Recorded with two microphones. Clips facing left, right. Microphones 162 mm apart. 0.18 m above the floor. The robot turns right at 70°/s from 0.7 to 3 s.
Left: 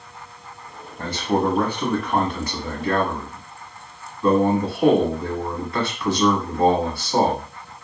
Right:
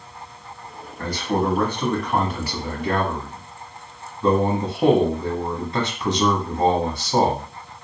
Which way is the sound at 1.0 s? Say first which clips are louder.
Left 1 dB; 25° left (ahead or behind).